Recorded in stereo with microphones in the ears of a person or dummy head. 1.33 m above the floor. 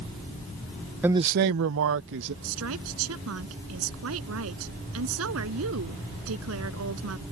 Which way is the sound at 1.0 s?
10° right (ahead or behind).